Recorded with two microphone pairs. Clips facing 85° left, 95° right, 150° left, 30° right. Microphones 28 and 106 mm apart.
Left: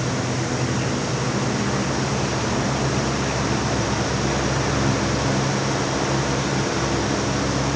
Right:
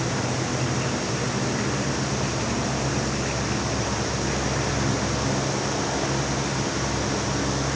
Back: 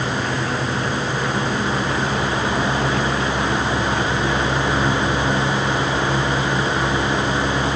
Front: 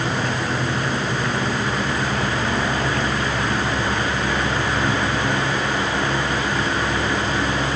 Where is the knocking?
No knocking in this recording.